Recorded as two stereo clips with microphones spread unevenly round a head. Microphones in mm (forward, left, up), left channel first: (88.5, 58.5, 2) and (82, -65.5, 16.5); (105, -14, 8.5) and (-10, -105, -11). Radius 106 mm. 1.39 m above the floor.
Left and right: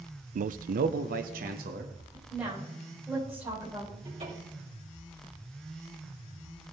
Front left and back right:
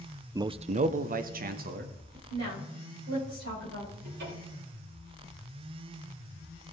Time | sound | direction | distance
0.3 | a man speaking | 70° right | 0.5 m
2.3 | a woman speaking | straight behind | 6 m
4.0 | a cupboard door | 160° right | 4.5 m